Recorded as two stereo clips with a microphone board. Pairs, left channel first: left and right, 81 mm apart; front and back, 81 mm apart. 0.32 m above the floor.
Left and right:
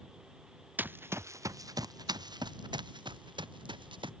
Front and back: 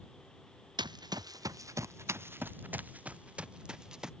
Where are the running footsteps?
160° right; by 4.1 s 100° right.